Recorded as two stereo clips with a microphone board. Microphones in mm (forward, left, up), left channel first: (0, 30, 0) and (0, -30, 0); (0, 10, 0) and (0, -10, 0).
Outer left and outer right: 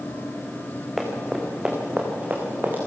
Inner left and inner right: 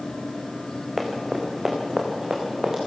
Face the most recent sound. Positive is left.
turn(degrees=-35)  # may be behind; listen again after turning